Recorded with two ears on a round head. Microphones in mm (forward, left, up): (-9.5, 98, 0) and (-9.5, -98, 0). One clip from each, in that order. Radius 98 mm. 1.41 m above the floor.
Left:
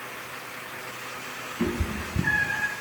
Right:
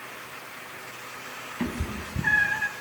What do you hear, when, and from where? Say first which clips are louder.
1.6 s a cat meowing: left 4 dB; 35° right (ahead or behind), 4 m